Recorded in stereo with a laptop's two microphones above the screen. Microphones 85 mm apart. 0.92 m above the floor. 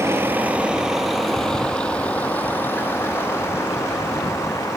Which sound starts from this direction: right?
A vehicle, at 0.0 s.